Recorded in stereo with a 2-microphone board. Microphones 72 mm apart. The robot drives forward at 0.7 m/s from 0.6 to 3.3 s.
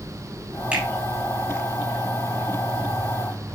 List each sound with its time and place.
0.7 s a finger snap: 15° right (ahead or behind), 8 m